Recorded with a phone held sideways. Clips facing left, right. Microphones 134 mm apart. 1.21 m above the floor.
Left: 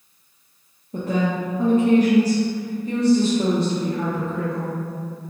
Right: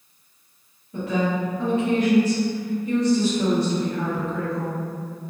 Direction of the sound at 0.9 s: 40° left (ahead or behind).